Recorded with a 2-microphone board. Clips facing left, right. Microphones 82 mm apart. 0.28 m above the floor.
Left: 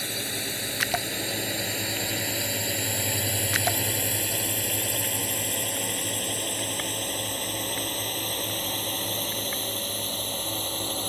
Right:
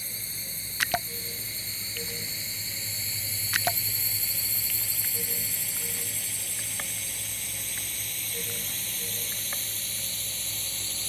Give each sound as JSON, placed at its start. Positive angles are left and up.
{"t": 0.0, "sound": "a drone", "side_deg": 75}